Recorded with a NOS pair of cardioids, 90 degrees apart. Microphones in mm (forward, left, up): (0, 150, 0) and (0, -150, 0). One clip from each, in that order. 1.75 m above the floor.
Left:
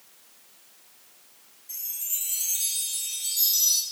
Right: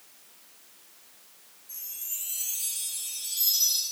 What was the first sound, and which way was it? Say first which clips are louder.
A chime: left 5 dB; 40° left.